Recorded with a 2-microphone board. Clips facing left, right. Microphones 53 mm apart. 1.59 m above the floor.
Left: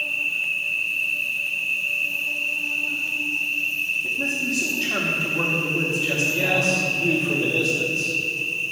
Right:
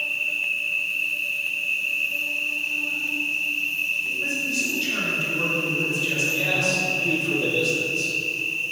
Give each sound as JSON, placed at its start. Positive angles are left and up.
{"t": 0.0, "sound": "an insect", "side_deg": 10, "distance_m": 1.4}
{"t": 4.0, "sound": "a man speaking", "side_deg": 75, "distance_m": 1.5}
{"t": 6.3, "sound": "a man speaking", "side_deg": 40, "distance_m": 2.5}